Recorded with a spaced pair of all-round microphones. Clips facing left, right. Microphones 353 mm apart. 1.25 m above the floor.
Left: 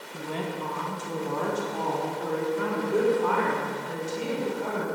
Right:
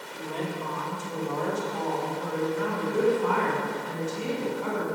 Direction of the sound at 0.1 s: 75° left (ahead or behind).